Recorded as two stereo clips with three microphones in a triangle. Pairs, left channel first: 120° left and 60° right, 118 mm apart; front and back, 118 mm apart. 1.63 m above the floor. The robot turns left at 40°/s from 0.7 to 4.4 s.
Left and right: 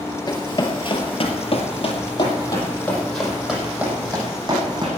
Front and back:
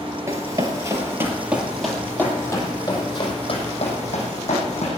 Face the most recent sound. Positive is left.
turn(degrees=-10)